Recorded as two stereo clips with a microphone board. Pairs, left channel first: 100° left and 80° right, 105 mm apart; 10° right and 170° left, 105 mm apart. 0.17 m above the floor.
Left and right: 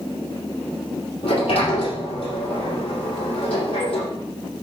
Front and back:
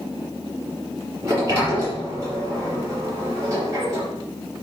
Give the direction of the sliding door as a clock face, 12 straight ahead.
8 o'clock.